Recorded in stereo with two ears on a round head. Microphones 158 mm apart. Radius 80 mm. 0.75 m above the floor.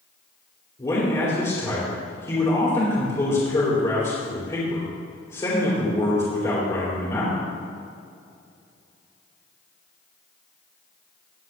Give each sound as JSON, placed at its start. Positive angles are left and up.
{"t": 0.8, "sound": "a man speaking", "side_deg": 25, "distance_m": 3.0}